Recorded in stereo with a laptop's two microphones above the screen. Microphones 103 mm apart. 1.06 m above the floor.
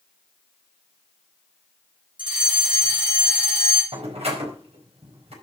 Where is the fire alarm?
50° right (ahead or behind), 4.5 m.